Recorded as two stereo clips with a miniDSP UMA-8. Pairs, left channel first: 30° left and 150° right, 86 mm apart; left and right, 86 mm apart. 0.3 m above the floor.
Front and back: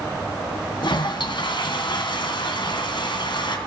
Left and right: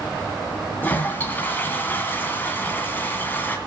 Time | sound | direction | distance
0.8 | a toilet flushing | 25° left | 2 m